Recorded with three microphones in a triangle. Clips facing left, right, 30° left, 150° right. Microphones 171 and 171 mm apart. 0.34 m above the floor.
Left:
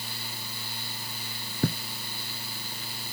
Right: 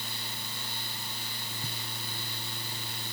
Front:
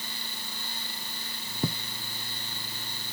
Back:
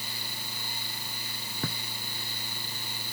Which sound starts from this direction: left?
Writing, at 1.6 s.